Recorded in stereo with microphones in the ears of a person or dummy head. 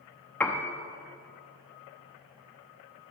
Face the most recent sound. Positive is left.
turn(degrees=5)  # may be behind; listen again after turning